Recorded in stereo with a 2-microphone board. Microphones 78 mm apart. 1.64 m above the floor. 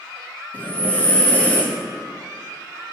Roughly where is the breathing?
Centre.